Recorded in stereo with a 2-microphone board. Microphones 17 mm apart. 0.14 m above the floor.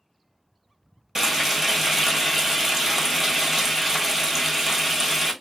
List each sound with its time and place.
1.1 s frying: 30° right (ahead or behind), 1.3 m